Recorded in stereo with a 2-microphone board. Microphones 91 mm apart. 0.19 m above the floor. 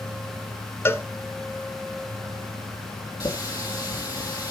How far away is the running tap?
About 3.5 m.